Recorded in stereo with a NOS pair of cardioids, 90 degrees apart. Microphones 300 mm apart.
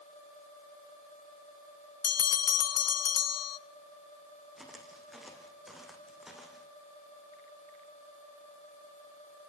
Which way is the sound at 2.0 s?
55° left.